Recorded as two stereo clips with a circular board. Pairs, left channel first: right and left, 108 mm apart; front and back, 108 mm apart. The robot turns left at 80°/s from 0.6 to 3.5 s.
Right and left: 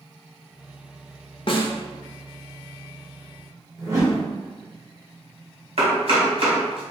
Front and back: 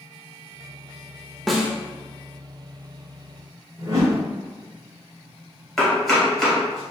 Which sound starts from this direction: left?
Chopping, at 5.8 s.